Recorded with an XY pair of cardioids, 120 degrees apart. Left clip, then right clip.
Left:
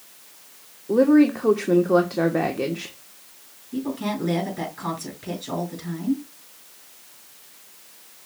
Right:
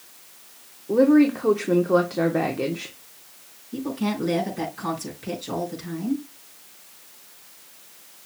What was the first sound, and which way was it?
A woman speaking, 5° left.